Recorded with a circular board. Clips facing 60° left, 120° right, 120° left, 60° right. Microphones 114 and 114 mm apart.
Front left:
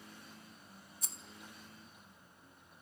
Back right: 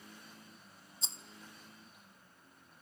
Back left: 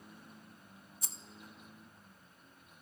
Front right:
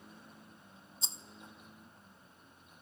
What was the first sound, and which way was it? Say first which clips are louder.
A rattle: back right 4 dB, front right 4 dB; 95° right.